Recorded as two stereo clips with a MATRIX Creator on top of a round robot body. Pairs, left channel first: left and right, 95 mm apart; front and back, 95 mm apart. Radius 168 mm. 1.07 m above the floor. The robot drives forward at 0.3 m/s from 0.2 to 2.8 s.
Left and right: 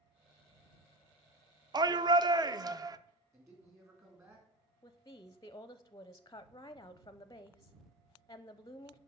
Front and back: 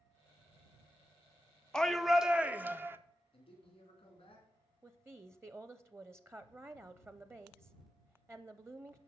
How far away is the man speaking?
About 3.5 m.